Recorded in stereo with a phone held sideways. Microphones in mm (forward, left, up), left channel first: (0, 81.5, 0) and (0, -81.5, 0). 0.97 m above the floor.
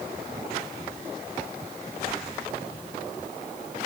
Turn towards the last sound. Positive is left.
No sound to turn to.